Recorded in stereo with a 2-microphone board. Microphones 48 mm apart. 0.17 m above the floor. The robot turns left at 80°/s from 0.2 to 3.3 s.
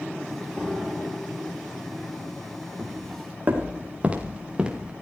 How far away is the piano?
About 2 m.